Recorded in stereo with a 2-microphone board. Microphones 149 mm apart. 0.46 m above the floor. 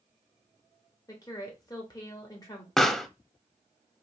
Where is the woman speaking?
25° left (ahead or behind), 1.8 m.